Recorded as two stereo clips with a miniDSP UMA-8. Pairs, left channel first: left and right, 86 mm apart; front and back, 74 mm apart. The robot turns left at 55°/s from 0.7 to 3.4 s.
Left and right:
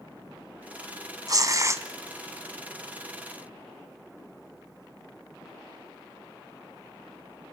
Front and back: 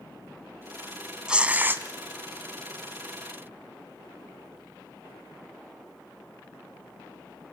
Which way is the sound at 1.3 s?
105° right.